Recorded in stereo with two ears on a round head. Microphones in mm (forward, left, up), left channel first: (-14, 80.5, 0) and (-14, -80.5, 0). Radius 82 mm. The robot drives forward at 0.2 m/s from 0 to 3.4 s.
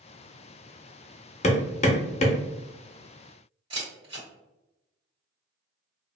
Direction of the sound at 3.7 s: 30° right (ahead or behind).